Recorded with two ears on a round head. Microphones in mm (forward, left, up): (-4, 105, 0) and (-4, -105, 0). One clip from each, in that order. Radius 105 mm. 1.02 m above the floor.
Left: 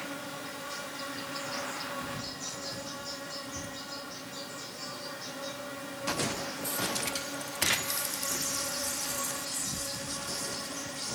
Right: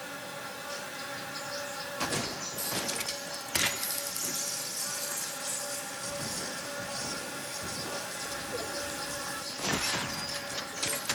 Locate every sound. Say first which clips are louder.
0.0 s an insect: left 1 dB; 15° right (ahead or behind), 1.1 m